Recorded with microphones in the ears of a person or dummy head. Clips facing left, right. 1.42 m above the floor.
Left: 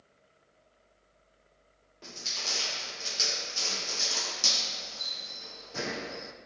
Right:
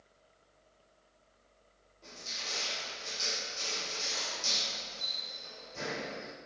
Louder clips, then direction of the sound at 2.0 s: Left 4 dB; 80° left.